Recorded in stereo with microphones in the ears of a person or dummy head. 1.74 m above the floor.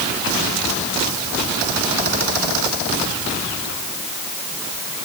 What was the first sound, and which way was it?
Only background noise.